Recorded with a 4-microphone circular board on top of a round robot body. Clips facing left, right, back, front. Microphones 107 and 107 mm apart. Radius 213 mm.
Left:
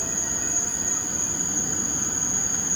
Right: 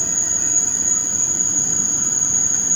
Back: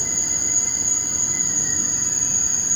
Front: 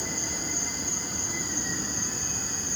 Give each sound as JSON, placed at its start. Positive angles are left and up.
{"t": 0.0, "sound": "an insect", "azimuth_deg": -95}